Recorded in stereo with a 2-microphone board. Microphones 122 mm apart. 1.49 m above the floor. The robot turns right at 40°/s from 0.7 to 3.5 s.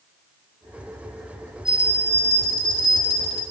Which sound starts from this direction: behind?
A bell, at 1.6 s.